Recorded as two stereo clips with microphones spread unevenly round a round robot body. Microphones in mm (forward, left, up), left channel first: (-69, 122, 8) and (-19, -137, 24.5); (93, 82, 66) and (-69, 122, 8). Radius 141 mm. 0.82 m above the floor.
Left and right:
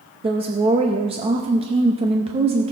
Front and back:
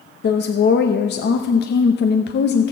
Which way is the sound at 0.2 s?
15° right.